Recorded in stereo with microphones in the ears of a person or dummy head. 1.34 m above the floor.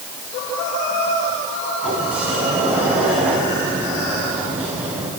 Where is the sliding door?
5° right (ahead or behind), 5 m.